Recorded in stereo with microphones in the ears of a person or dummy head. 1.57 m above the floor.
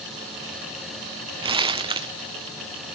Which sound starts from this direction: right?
Crumpling, at 1.4 s.